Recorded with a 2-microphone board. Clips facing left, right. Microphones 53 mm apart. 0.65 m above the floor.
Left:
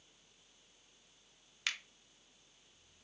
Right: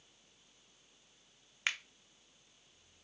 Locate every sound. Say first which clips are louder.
1.7 s a finger snap: right 3 dB; 25° right (ahead or behind), 0.5 m